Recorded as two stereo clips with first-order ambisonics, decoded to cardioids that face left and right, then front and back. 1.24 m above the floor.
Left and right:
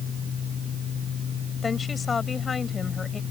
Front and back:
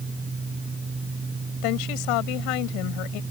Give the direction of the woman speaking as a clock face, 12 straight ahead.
11 o'clock.